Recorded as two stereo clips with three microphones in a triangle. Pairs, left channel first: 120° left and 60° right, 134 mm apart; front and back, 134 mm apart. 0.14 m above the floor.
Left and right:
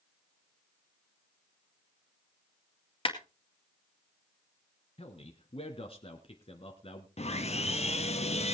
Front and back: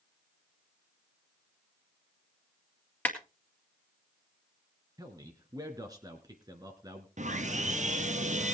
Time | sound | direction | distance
3.0 | a clap | 75° left | 2.0 m
5.0 | a man speaking | 130° left | 1.4 m
7.2 | sawing | 155° left | 1.1 m